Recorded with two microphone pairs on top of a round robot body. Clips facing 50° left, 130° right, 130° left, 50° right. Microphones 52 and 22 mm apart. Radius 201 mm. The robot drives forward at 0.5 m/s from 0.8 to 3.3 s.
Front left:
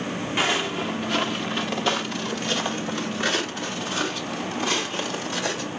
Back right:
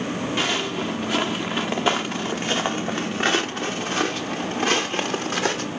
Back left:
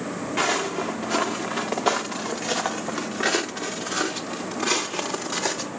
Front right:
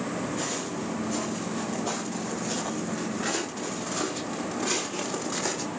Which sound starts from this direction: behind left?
Footsteps, at 0.4 s.